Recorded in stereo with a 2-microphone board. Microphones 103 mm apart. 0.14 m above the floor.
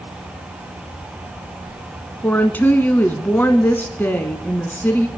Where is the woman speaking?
20° left (ahead or behind), 1.1 m.